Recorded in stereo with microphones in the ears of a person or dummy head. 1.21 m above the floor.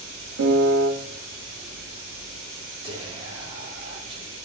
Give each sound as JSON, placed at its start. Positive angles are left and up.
{"t": 0.4, "sound": "a piano", "side_deg": -70, "distance_m": 2.0}
{"t": 2.8, "sound": "whispering", "side_deg": -25, "distance_m": 6.5}